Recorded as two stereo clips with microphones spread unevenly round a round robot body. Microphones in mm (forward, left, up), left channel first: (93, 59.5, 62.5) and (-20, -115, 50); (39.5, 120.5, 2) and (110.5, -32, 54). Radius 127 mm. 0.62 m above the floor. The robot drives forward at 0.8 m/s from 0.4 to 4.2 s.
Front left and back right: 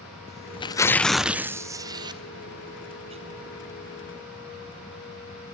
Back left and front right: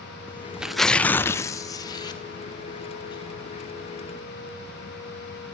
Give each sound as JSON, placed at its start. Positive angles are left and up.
{"t": 0.3, "sound": "tearing paper", "azimuth_deg": 40, "distance_m": 0.7}